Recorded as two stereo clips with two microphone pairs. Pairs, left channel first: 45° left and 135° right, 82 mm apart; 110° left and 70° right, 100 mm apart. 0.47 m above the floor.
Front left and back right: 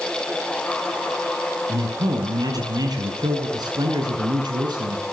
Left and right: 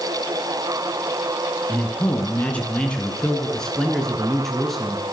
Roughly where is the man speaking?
Behind.